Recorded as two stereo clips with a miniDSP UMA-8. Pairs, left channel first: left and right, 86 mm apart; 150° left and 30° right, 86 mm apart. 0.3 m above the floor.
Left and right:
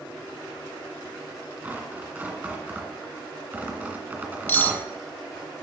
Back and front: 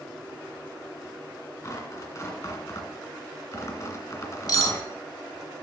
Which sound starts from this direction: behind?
Tearing paper, at 1.6 s.